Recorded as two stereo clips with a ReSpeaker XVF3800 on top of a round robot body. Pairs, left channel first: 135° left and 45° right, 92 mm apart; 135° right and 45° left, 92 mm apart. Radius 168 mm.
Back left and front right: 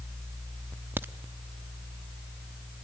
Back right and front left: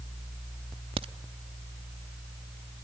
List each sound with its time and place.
1.0 s a crack: 25° left, 0.6 m